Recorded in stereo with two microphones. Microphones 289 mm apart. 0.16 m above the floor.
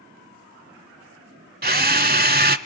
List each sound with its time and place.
1.6 s a drill: 30° right (ahead or behind), 0.6 m